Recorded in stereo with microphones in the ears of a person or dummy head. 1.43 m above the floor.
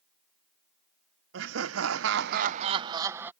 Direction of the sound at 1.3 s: 75° right (ahead or behind).